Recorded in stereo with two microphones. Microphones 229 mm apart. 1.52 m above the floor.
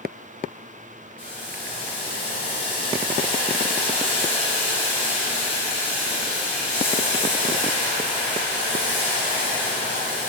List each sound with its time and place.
1.2 s boiling: 25° left (ahead or behind), 1.1 m